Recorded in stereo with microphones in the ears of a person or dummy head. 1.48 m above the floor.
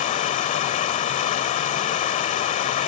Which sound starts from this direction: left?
Running water, at 0.0 s.